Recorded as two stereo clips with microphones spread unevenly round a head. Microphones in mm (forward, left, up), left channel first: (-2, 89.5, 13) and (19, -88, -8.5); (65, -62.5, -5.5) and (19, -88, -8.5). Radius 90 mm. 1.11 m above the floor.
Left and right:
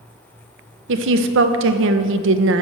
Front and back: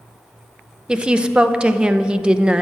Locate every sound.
0.9 s a woman speaking: 80° right, 0.7 m